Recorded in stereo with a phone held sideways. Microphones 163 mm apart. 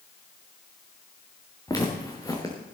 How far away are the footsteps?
About 3.5 m.